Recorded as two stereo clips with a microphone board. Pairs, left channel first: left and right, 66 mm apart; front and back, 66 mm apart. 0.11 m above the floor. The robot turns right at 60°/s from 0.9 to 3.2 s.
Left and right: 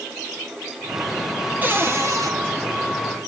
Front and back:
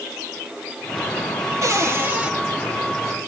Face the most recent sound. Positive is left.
turn(degrees=-55)